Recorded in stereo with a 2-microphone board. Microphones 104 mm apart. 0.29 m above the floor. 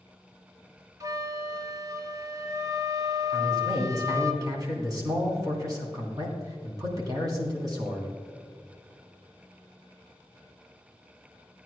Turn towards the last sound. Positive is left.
turn(degrees=-35)  # may be behind; listen again after turning